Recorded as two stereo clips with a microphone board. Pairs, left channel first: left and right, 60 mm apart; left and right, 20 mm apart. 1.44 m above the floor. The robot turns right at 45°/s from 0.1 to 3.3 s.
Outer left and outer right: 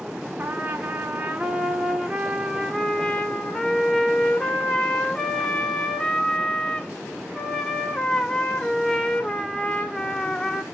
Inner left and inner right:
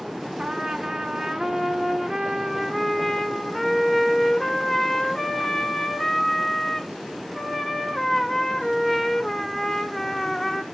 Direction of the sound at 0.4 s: 25° right (ahead or behind).